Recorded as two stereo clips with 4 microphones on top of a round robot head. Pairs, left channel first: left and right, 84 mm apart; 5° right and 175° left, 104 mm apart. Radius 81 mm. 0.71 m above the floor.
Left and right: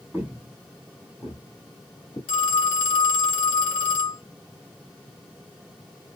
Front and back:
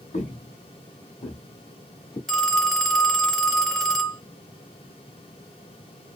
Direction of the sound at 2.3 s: 80° left.